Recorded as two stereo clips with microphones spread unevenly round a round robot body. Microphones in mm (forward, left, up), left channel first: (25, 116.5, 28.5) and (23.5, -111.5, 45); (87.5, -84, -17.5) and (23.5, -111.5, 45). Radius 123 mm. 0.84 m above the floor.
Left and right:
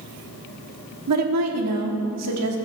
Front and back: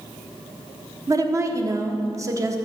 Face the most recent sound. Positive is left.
turn(degrees=-100)